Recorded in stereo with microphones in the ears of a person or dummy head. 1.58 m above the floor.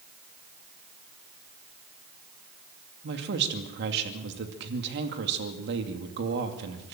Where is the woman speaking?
65° right (ahead or behind), 2.5 m.